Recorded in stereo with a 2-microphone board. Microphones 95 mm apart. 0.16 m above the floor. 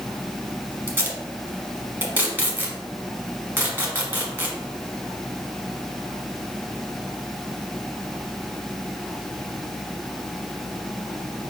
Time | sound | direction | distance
0.9 | tape being pulled | 20° right (ahead or behind) | 1.0 m